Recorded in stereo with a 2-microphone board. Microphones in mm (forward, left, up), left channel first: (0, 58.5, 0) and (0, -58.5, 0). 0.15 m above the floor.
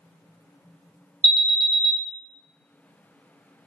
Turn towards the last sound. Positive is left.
turn(degrees=-35)  # may be behind; listen again after turning